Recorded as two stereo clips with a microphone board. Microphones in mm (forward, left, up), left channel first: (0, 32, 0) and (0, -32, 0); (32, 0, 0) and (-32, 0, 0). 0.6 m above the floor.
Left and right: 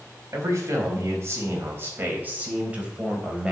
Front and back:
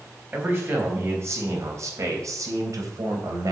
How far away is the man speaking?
About 4.5 m.